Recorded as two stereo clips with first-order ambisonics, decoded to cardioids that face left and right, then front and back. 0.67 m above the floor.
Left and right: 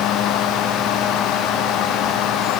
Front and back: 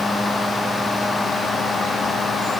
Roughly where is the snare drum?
I don't hear a snare drum.